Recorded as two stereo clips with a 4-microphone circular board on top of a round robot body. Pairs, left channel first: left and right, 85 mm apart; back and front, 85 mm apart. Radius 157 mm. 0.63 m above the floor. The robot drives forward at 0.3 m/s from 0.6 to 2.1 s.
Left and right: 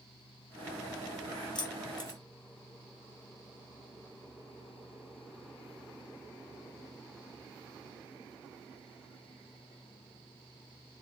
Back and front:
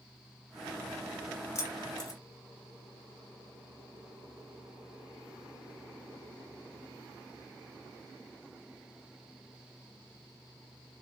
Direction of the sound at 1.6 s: 120° left.